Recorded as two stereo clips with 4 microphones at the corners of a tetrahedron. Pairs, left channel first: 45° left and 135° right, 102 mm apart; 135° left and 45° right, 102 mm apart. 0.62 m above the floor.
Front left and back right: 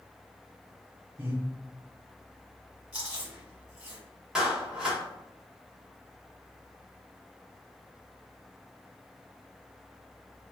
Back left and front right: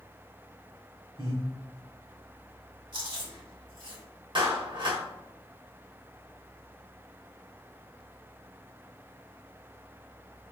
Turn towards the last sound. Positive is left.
turn(degrees=-55)